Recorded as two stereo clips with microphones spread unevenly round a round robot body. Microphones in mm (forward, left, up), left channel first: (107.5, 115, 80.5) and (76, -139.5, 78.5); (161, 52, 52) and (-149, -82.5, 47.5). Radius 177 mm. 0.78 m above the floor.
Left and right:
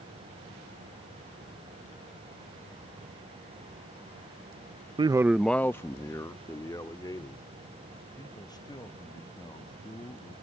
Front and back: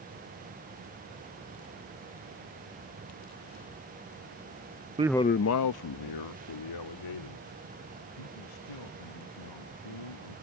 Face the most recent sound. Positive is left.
turn(degrees=10)